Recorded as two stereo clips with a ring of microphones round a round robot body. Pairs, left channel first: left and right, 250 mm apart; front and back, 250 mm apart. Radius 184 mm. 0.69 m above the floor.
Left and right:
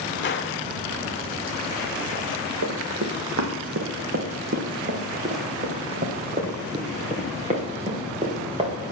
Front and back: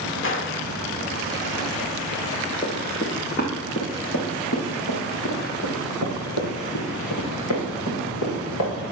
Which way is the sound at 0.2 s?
40° left.